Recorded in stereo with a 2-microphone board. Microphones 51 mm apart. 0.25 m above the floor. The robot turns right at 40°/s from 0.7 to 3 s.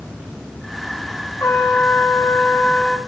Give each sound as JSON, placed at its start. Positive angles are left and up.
{"t": 1.4, "sound": "a trumpet", "azimuth_deg": 95, "distance_m": 1.0}